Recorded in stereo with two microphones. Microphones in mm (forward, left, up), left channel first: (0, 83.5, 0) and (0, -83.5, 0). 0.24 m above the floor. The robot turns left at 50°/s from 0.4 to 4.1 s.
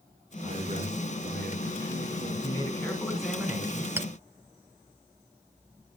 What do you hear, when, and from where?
0.4 s a man speaking: 35° right, 2.5 m; by 2.3 s 130° right, 2.5 m
2.4 s a man speaking: 35° left, 2.5 m; by 3.9 s 35° right, 2.5 m
4.0 s a clink: 15° right (ahead or behind), 0.5 m